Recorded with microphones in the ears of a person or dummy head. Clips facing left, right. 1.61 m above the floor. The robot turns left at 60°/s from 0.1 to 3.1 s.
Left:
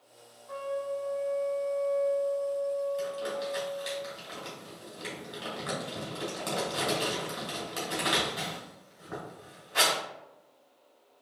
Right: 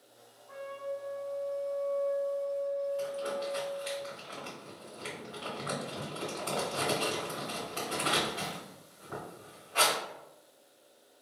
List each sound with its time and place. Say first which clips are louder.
0.5 s a trumpet: left 5 dB; 125° left, 0.7 m; by 4.0 s 35° right, 0.7 m
3.0 s crumpling: left 1 dB; 35° left (ahead or behind), 1.7 m; by 10.0 s 30° left (ahead or behind), 1.7 m